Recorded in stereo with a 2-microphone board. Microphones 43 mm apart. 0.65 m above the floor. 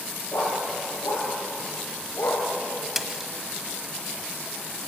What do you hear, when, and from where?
0.3 s a dog barking: 85° left, 6 m; by 2.5 s 80° left, 5 m
3.0 s a splash: 5° right (ahead or behind), 1.2 m